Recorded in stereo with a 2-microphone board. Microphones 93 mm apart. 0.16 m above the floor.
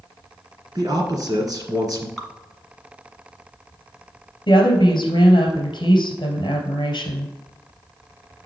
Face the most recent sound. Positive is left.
turn(degrees=50)  # may be behind; listen again after turning